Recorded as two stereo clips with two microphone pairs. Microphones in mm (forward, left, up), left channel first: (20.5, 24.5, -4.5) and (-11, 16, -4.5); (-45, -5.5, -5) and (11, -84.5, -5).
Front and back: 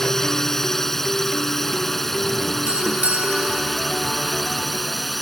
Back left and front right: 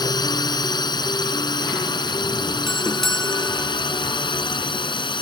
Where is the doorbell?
145° right.